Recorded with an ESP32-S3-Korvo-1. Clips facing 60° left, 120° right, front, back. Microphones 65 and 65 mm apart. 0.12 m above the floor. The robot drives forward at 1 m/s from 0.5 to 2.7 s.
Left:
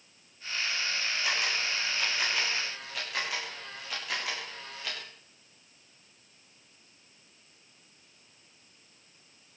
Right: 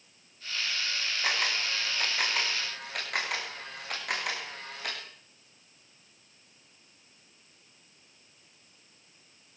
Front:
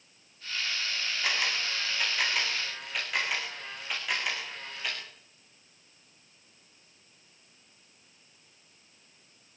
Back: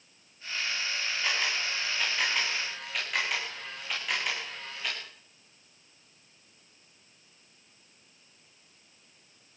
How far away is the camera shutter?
About 9.5 m.